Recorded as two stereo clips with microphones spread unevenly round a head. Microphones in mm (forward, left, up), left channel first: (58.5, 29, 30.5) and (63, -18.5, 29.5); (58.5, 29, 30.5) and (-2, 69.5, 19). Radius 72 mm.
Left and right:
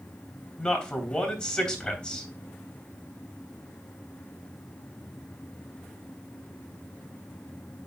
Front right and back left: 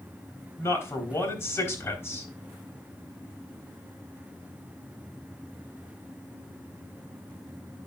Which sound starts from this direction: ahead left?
A man speaking, at 0.6 s.